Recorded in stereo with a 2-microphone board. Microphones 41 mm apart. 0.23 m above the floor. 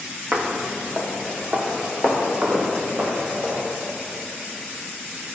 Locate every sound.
0.3 s footsteps: 40° right (ahead or behind), 2 m; by 3.6 s 50° right (ahead or behind), 5 m